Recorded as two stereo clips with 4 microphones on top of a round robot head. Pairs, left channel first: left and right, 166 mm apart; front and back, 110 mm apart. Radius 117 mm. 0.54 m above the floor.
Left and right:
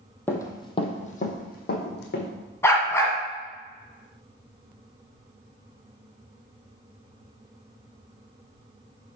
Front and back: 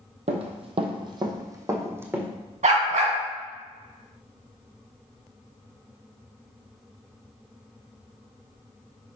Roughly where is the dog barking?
Behind.